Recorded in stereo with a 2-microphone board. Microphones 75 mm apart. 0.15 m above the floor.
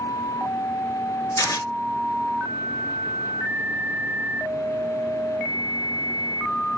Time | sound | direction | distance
1.4 | tearing paper | 55° left (ahead or behind) | 1.3 m